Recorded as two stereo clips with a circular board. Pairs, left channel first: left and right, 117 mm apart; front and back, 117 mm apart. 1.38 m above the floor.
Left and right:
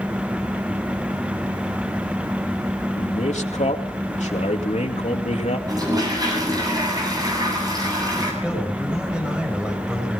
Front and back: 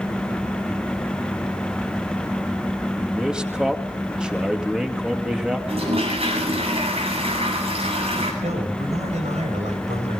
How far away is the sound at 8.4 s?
About 7 m.